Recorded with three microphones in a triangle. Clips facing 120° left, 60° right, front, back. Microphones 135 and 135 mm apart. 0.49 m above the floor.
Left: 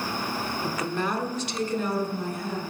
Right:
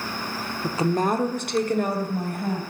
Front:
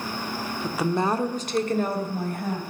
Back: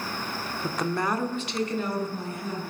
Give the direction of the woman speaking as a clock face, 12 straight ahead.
4 o'clock.